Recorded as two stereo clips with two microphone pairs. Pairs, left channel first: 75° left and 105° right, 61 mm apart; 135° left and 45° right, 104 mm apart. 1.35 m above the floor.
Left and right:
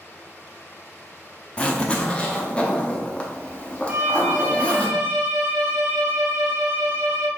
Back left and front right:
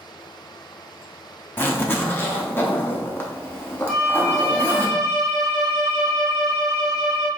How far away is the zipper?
About 0.8 m.